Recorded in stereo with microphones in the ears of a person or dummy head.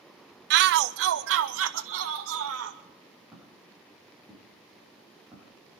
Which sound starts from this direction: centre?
Footsteps, at 3.3 s.